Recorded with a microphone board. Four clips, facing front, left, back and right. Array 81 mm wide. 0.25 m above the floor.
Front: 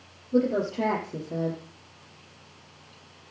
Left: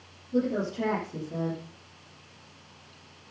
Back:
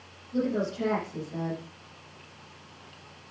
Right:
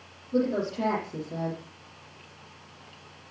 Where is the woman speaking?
15° right, 5 m.